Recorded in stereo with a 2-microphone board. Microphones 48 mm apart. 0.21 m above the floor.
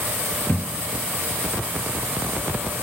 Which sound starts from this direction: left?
A thud, at 0.5 s.